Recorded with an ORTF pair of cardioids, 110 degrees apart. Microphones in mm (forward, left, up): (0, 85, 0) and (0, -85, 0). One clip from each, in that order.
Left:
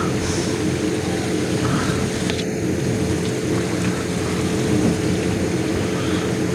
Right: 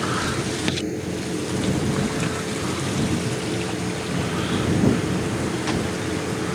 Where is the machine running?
40° left.